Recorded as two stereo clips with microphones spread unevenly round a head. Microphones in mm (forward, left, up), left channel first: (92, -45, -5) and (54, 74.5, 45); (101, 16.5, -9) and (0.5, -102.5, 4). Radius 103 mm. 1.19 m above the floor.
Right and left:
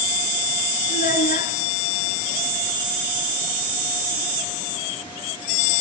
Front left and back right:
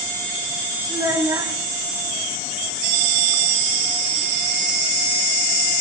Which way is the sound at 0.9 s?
60° right.